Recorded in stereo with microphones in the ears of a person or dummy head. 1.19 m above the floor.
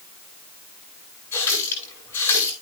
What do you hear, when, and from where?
1.3 s a running tap: 15° left (ahead or behind), 10 m